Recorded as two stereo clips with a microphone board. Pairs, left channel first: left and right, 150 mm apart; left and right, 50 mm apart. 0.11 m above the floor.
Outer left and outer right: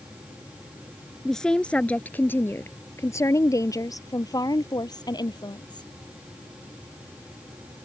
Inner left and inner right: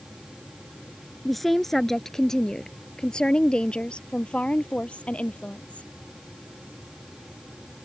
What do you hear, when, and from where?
1.2 s a woman speaking: 5° left (ahead or behind); by 5.9 s 30° left (ahead or behind)